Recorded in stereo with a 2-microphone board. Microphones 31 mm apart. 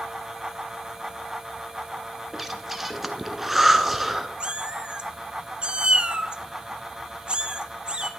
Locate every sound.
2.3 s breathing: 10° right (ahead or behind), 0.8 m
4.4 s a cat meowing: 35° right (ahead or behind), 0.7 m